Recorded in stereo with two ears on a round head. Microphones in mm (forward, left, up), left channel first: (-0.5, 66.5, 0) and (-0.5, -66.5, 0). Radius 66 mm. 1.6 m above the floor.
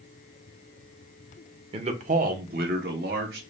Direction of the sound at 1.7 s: 35° right (ahead or behind).